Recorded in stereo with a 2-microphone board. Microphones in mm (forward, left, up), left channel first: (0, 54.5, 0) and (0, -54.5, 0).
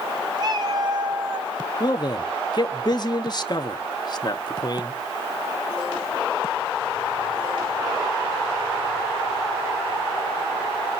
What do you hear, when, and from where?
0.4 s a cat meowing: 45° right (ahead or behind), 2.5 m
1.8 s a man speaking: 45° left (ahead or behind), 1.2 m